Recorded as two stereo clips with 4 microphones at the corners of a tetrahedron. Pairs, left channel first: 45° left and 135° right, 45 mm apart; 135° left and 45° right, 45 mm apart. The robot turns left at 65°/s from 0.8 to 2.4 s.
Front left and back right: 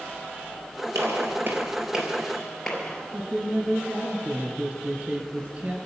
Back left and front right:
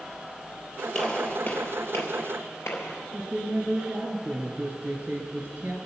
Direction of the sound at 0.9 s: 140° right.